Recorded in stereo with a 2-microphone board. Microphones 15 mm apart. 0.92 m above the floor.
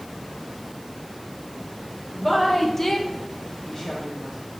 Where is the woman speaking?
5° left (ahead or behind), 1.3 m; by 4.3 s 25° left (ahead or behind), 1.3 m.